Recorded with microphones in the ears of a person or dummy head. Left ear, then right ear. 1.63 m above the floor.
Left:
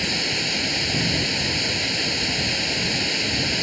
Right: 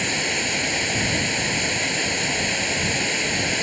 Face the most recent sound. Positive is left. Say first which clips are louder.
# even
turn(degrees=-15)  # may be behind; listen again after turning